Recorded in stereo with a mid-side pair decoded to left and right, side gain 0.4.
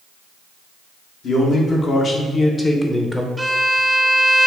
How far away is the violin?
About 0.5 m.